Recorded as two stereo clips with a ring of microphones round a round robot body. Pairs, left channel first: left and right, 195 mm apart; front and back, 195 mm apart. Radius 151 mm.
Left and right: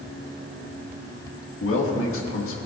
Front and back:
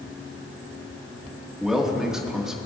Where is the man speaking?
95° left, 1.7 m.